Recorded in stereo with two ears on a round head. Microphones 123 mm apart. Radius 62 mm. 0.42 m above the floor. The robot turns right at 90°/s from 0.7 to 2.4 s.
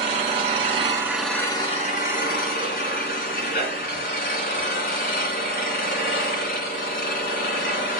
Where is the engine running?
50° right, 2.5 m; by 8.0 s 105° left, 2.5 m.